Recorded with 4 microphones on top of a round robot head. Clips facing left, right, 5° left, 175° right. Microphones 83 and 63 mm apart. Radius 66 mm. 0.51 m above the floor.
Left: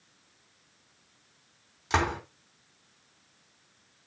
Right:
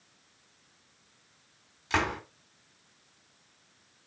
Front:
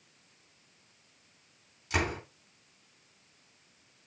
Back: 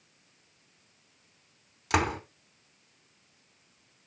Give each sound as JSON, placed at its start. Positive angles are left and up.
{"t": 1.9, "sound": "a door slam", "azimuth_deg": 165, "distance_m": 3.5}